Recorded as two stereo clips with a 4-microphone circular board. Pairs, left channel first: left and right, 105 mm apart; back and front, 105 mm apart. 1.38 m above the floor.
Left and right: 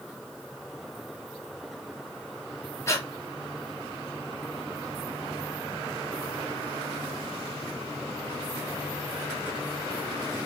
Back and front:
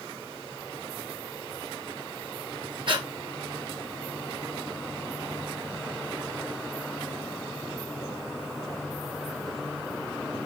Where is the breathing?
30° left, 1.0 m.